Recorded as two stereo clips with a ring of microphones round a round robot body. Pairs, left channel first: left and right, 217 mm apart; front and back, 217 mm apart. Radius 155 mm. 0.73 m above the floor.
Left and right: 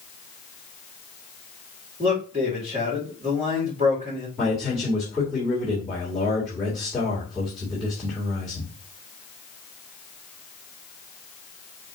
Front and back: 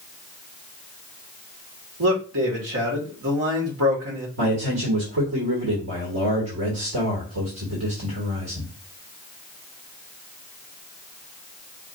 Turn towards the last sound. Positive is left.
turn(degrees=180)